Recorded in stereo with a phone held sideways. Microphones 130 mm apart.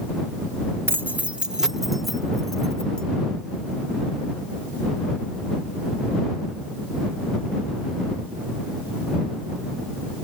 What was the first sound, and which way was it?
Keys jangling, 20° right (ahead or behind).